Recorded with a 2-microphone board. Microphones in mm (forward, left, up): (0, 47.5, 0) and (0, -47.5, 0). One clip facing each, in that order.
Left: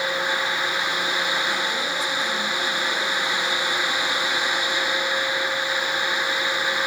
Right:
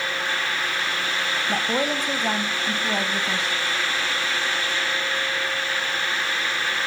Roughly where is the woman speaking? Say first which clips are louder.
Right 3 dB; right.